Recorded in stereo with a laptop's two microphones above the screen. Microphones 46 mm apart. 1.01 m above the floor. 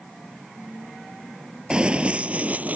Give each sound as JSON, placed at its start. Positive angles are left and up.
{"t": 1.7, "sound": "running footsteps", "side_deg": -20}